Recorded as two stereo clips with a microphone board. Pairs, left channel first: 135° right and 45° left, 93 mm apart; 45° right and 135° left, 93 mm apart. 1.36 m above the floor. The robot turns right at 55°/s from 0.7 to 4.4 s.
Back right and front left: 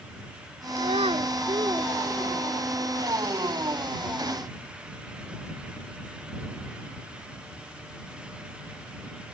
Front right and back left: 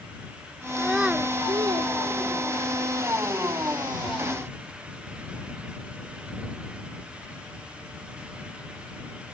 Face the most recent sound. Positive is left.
turn(degrees=-120)